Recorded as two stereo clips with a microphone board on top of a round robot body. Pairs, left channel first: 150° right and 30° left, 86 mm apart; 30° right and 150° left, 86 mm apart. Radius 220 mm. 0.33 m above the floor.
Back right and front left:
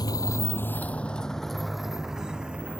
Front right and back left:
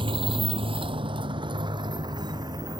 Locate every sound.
0.0 s a motorcycle: 170° left; by 2.8 s 105° left